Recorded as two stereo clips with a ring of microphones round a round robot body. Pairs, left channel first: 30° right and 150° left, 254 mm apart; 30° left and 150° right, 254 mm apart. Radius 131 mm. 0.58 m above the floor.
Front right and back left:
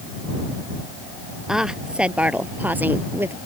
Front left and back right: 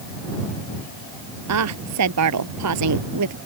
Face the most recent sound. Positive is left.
turn(degrees=-130)